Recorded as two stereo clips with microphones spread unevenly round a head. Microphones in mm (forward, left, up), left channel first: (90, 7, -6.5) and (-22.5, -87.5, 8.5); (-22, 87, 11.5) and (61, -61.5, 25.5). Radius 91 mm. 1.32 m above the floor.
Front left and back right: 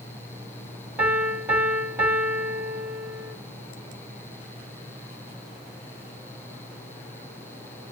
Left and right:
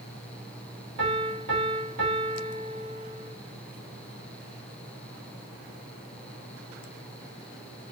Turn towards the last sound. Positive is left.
turn(degrees=-65)